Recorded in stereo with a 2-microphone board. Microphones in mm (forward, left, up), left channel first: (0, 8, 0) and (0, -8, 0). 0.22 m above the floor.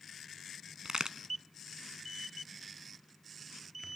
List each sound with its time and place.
0.8 s a crack: 60° right (ahead or behind), 0.7 m